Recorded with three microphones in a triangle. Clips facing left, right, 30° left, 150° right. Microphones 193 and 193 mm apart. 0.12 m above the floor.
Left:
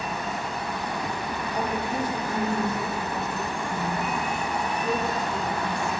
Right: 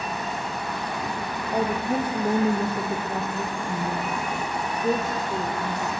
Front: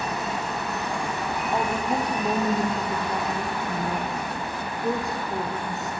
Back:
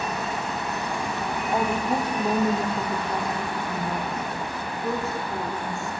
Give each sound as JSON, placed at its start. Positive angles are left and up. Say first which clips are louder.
{"t": 1.5, "sound": "a woman speaking", "louder": "right 5 dB, back 2 dB", "azimuth_deg": -70, "distance_m": 5.5}